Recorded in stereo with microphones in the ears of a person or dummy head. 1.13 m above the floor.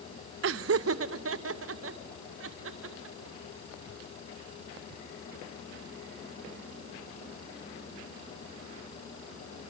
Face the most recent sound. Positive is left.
turn(degrees=-80)